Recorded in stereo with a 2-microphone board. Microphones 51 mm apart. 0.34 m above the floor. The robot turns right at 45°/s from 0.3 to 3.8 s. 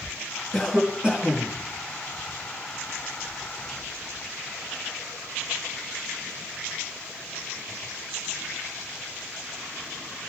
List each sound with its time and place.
0.5 s a cough: 175° left, 4 m; by 1.6 s 135° right, 4 m